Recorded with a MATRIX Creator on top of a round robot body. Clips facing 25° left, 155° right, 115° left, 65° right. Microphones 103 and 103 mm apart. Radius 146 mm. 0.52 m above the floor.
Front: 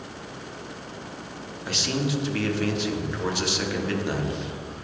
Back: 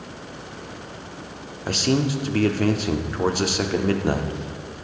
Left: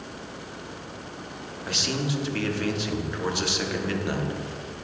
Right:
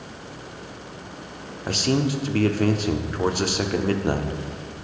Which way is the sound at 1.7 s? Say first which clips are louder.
Back 6 dB, right 7 dB; 115° right.